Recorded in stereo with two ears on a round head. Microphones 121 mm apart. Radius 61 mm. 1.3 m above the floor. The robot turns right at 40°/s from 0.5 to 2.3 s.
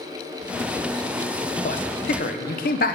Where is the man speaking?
50° left (ahead or behind), 0.7 m; by 3.0 s 70° left (ahead or behind), 0.7 m.